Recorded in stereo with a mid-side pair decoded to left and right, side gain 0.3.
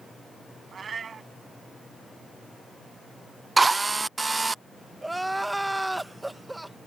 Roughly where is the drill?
Ahead right.